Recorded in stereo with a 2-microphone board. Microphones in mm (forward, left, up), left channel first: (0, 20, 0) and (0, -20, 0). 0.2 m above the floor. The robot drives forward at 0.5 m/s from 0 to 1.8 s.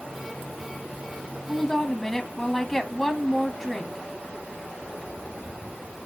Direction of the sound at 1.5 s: 10° left (ahead or behind).